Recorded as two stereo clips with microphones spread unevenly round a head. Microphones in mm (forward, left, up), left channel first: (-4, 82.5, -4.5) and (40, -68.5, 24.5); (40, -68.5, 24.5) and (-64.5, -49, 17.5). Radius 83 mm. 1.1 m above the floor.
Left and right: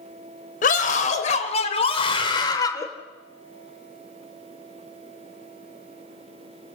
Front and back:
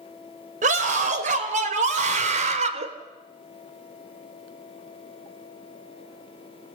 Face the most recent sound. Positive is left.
turn(degrees=180)